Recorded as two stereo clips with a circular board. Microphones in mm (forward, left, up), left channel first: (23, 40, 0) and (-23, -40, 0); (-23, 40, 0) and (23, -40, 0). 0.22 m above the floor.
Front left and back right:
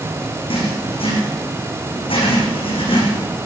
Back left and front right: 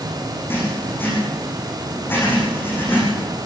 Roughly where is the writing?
Ahead left.